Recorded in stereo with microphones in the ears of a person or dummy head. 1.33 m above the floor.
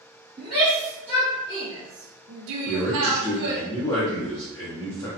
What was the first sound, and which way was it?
A shout, centre (ahead or behind).